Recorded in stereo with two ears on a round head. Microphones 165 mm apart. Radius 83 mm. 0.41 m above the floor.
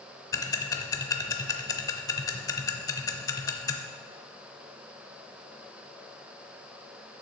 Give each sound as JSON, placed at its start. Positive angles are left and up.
{"t": 0.3, "sound": "ticking", "side_deg": 20, "distance_m": 0.5}